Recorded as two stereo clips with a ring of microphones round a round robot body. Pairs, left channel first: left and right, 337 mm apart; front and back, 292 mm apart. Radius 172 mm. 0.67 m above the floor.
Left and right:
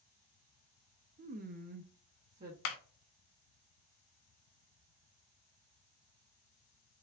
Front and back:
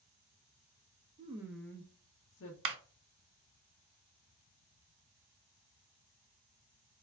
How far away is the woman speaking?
About 0.5 m.